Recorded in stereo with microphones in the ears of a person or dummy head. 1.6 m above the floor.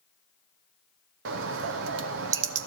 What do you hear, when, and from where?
1.2 s a bird: 70° right (ahead or behind), 0.7 m